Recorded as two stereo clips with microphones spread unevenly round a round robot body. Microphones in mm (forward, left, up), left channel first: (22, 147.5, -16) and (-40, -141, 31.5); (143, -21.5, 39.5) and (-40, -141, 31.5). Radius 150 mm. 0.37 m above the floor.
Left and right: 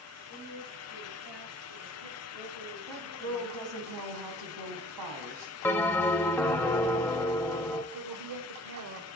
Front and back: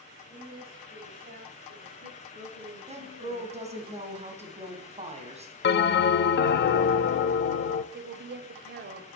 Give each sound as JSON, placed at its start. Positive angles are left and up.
{"t": 0.3, "sound": "a woman speaking", "azimuth_deg": -100, "distance_m": 7.5}
{"t": 2.9, "sound": "a woman speaking", "azimuth_deg": -90, "distance_m": 2.5}
{"t": 5.6, "sound": "a bell", "azimuth_deg": 0, "distance_m": 0.6}
{"t": 7.9, "sound": "a woman speaking", "azimuth_deg": -130, "distance_m": 1.4}